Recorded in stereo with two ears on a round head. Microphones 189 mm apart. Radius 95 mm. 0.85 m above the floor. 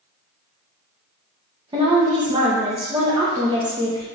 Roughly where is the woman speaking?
Right.